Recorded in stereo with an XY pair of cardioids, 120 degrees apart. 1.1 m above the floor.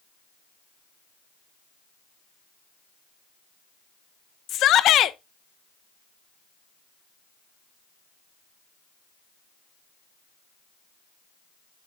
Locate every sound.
4.5 s a shout: 60° left, 0.6 m